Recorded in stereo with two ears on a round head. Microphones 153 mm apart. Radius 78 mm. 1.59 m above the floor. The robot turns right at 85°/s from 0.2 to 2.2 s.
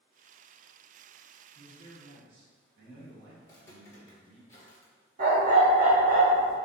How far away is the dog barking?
About 1.5 m.